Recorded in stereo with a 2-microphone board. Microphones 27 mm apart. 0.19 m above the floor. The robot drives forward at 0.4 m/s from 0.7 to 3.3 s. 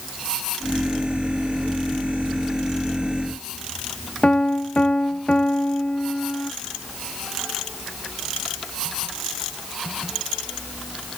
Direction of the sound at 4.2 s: 45° left (ahead or behind).